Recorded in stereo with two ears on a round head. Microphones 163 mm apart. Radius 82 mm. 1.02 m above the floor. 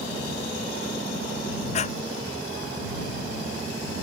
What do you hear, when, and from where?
1.7 s breathing: 40° left (ahead or behind)